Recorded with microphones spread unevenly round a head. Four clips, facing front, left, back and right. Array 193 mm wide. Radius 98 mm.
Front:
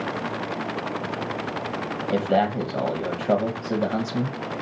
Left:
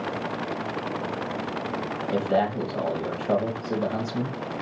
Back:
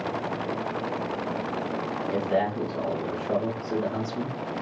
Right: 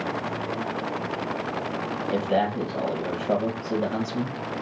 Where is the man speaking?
10° left, 0.9 m.